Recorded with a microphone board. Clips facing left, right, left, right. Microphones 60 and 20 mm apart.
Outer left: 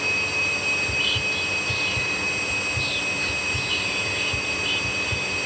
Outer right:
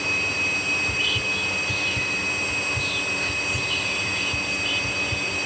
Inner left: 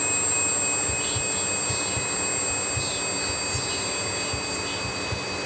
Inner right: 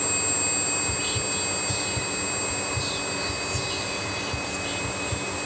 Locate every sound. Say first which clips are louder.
0.8 s whispering: even, inner right 1 dB; 5° right (ahead or behind), 2.0 m